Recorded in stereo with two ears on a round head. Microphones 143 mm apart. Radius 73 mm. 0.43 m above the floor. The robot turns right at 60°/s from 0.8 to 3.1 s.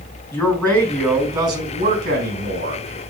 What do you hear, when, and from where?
0.3 s a man speaking: 165° left, 4.5 m; by 2.8 s 70° right, 4.5 m